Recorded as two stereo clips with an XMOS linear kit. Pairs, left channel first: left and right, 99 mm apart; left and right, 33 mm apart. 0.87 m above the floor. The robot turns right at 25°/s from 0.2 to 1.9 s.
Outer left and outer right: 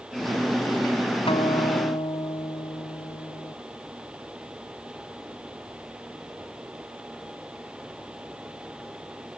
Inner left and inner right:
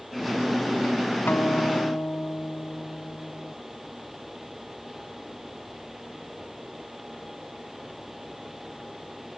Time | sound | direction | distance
1.2 | a guitar | 80° left | ?